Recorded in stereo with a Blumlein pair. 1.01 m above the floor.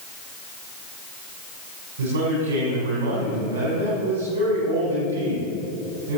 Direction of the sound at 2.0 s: 70° right.